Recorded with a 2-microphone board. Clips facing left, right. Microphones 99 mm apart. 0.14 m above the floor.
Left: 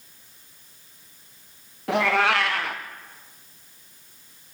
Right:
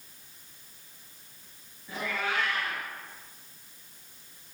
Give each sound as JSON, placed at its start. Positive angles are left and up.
{"t": 1.9, "sound": "a cat meowing", "side_deg": 75, "distance_m": 3.5}